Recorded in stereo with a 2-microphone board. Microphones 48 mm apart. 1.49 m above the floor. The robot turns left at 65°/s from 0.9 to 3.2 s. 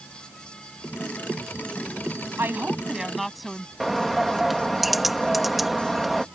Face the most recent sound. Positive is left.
turn(degrees=-5)  # may be behind; listen again after turning